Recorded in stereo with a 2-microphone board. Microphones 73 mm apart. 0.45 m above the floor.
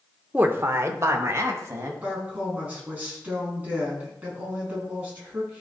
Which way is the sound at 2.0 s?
20° right (ahead or behind).